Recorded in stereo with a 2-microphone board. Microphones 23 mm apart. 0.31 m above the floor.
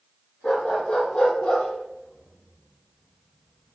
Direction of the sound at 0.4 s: 65° left (ahead or behind).